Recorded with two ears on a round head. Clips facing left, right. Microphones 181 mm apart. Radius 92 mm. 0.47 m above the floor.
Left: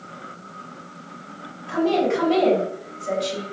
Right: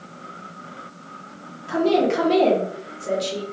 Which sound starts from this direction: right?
A woman speaking, at 1.7 s.